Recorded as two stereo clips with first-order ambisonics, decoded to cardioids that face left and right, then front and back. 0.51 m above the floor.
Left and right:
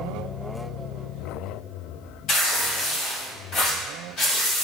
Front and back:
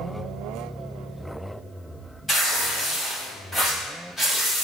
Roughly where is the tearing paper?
Left.